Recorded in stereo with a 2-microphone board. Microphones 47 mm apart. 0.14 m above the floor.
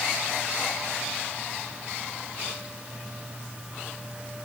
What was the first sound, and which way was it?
Only background noise.